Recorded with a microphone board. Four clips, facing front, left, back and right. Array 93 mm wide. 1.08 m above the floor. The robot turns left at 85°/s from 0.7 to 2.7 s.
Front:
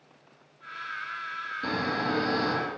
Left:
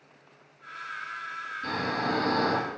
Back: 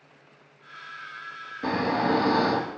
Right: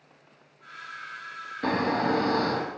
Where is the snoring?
115° right, 2 m; by 2.7 s 155° left, 2 m.